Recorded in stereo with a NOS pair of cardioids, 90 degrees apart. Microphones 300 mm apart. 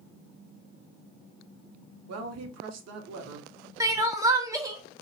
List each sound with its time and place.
2.1 s a woman speaking: 60° right, 0.7 m
3.8 s crying: 10° right, 0.7 m